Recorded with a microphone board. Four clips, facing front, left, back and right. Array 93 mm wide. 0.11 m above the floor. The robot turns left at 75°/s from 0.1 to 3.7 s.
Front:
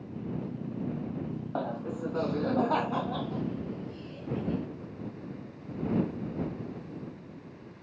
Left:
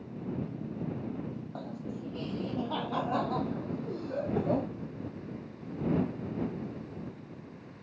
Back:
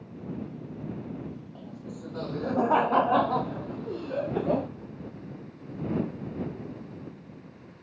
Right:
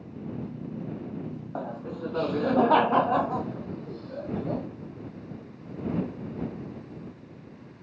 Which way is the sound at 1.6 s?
25° right.